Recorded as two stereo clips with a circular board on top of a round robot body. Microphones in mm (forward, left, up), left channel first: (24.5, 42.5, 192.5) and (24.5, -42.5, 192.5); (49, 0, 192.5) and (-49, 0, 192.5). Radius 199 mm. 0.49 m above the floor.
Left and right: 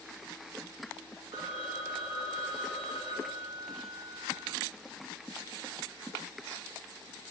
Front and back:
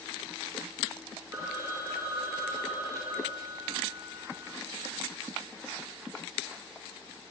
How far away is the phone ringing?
About 3 m.